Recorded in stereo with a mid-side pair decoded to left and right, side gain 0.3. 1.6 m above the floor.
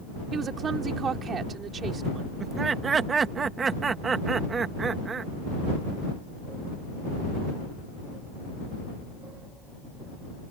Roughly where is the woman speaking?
Right.